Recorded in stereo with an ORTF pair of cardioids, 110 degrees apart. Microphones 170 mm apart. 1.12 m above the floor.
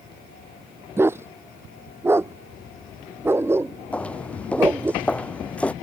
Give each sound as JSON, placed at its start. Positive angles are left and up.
{"t": 1.0, "sound": "a dog barking", "azimuth_deg": -15}
{"t": 3.9, "sound": "footsteps", "azimuth_deg": 10}